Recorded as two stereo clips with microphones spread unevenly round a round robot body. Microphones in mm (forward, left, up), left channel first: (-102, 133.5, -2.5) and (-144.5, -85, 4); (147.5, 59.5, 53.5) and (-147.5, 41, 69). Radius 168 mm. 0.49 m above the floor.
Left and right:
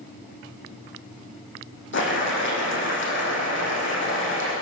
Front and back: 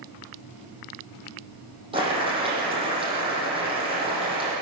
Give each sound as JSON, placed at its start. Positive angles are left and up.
{"t": 1.9, "sound": "boiling", "azimuth_deg": 110, "distance_m": 9.0}